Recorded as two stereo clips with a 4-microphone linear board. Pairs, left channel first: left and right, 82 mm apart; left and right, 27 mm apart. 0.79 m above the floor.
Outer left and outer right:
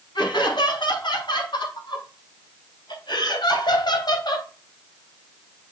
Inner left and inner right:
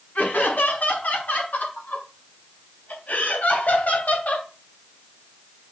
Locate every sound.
0.1 s laughter: 85° left, 6 m; by 4.5 s 65° left (ahead or behind), 3.5 m